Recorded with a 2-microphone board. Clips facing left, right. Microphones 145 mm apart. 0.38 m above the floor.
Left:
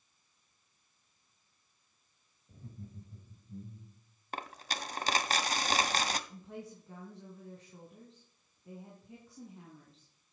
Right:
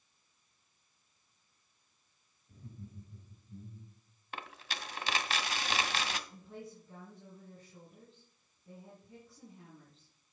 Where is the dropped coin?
40° left (ahead or behind), 0.8 m.